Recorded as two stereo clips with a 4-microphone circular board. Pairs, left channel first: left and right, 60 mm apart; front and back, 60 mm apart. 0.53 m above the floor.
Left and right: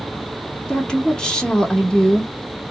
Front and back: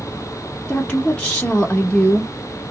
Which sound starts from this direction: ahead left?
A woman speaking, at 0.7 s.